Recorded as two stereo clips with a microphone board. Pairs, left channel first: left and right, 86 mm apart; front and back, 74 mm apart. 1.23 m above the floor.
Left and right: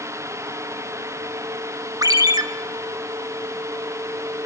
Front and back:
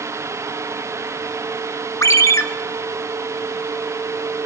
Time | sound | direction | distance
2.0 | a ringtone | 50° right | 0.6 m